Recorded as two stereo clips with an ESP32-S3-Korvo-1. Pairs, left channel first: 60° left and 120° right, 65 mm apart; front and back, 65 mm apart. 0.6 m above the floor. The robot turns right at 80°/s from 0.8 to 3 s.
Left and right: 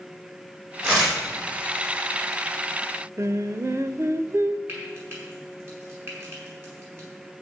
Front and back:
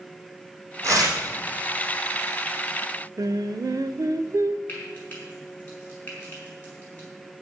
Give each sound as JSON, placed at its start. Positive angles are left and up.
{"t": 0.8, "sound": "tearing paper", "azimuth_deg": 130, "distance_m": 5.5}
{"t": 3.2, "sound": "singing", "azimuth_deg": -160, "distance_m": 0.5}
{"t": 4.7, "sound": "frying", "azimuth_deg": -65, "distance_m": 5.5}